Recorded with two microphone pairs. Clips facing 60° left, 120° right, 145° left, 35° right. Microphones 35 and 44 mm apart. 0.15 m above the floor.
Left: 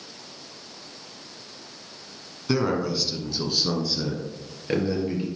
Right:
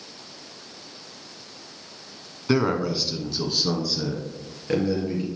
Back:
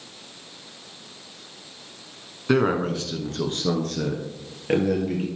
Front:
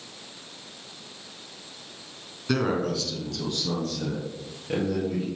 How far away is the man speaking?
About 1.2 m.